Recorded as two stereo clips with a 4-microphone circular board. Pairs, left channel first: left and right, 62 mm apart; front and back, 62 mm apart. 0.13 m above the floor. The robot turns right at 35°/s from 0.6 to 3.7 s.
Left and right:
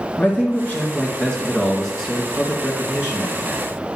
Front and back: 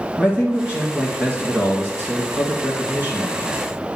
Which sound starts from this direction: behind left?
A man speaking, at 0.2 s.